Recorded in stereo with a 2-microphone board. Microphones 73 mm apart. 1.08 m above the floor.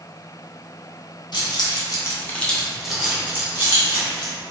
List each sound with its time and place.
1.3 s keys jangling: 75° left (ahead or behind), 0.7 m; by 4.3 s 35° right (ahead or behind), 1.3 m